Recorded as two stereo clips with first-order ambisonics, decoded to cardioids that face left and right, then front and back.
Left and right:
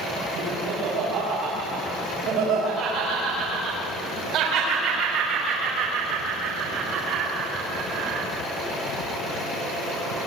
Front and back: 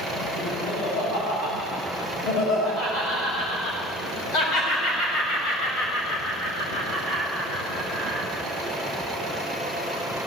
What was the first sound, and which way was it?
Laughter, 40° right.